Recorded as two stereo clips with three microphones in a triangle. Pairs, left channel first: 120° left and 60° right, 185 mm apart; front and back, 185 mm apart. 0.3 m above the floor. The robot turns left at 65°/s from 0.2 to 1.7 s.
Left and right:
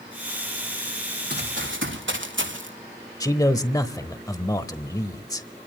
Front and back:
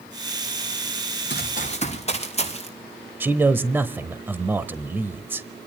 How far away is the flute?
No flute in this recording.